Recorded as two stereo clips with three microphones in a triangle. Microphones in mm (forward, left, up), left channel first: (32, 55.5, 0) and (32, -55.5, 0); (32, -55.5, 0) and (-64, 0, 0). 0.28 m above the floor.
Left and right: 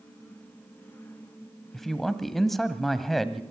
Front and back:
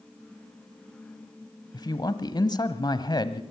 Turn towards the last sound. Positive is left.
turn(degrees=0)